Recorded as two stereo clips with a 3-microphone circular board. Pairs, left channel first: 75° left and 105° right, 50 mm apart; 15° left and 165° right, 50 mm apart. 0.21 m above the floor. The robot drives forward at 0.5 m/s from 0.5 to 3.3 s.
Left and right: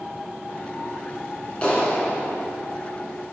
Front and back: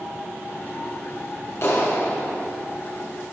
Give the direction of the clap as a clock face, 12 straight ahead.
12 o'clock.